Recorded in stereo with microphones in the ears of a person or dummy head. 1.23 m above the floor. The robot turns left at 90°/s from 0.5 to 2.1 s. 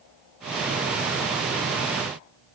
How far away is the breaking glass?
No breaking glass in this recording.